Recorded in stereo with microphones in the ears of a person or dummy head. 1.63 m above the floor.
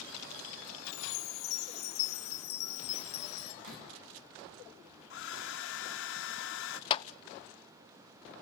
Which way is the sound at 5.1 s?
80° left.